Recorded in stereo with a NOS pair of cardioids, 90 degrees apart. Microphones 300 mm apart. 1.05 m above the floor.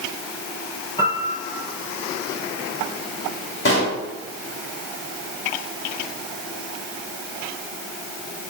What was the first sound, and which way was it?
A piano, 15° left.